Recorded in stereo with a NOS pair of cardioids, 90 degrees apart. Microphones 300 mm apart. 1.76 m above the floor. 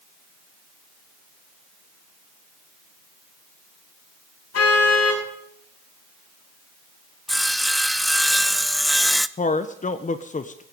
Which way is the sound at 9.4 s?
25° left.